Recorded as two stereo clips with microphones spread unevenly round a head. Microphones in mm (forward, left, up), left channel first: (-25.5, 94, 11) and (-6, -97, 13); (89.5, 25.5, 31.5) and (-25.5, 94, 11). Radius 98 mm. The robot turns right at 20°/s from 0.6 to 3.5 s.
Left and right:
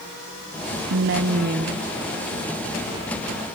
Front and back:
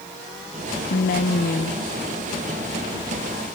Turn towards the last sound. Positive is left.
turn(degrees=0)